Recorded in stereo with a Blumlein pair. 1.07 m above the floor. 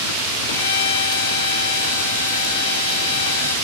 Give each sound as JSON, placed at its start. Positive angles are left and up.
{"t": 0.5, "sound": "a violin", "azimuth_deg": 65, "distance_m": 1.6}